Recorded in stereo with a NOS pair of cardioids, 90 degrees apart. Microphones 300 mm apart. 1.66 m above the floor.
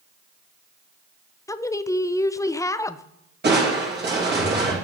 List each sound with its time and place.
1.5 s a woman speaking: 10° left, 0.5 m
3.4 s crushing: 35° right, 3 m